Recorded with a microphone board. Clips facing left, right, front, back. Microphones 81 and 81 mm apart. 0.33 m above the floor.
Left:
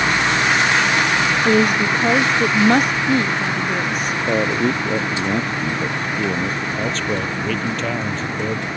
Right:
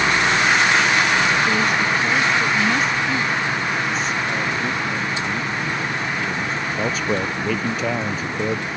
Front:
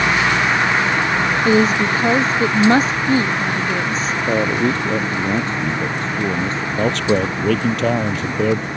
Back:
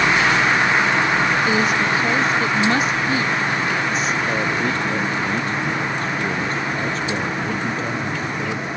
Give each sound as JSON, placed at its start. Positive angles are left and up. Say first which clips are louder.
{"t": 1.4, "sound": "a woman speaking", "louder": "left 3 dB, front 4 dB", "azimuth_deg": 55}
{"t": 4.3, "sound": "a man speaking", "louder": "left 5 dB, front 4 dB", "azimuth_deg": 60}
{"t": 6.8, "sound": "a man speaking", "louder": "right 2 dB, front 6 dB", "azimuth_deg": -5}